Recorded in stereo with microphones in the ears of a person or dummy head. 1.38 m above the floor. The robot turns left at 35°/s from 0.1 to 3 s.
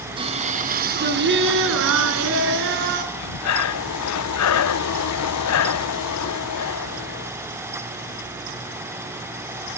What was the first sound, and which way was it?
Singing, 25° right.